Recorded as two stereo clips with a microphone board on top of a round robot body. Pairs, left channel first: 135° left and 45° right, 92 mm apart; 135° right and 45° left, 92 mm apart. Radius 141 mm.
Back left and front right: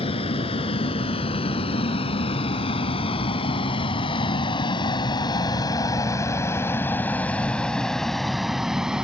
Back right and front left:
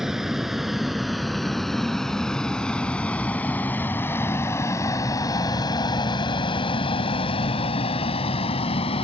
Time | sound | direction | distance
0.0 | a vehicle | 130° left | ?